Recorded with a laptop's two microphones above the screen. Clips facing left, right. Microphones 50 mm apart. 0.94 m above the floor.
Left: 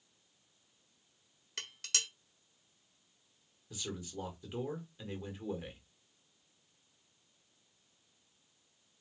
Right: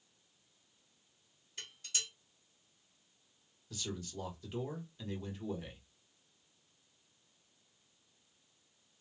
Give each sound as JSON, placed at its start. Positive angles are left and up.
{"t": 1.6, "sound": "dishes clattering", "side_deg": 75, "distance_m": 0.9}
{"t": 3.7, "sound": "a man speaking", "side_deg": 15, "distance_m": 1.2}